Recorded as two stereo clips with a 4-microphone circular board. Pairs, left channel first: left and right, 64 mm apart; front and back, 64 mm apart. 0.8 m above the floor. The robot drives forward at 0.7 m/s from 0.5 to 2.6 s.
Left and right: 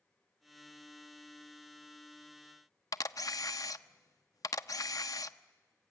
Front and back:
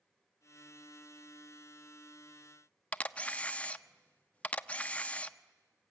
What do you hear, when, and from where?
2.9 s a camera shutter: 70° left, 0.5 m